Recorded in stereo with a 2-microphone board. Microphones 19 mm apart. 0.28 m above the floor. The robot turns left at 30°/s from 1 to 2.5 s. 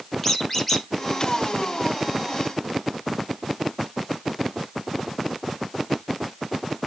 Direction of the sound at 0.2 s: 10° left (ahead or behind).